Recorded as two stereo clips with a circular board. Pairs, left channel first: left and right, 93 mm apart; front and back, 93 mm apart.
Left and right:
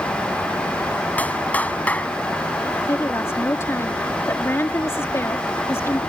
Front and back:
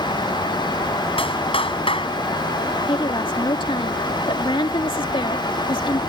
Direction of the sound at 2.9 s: 30° left.